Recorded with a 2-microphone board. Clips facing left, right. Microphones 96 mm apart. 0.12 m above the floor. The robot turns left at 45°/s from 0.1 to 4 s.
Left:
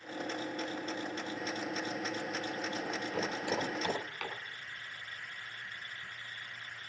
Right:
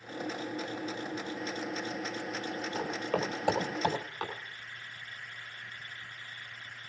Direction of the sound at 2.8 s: 75° right (ahead or behind).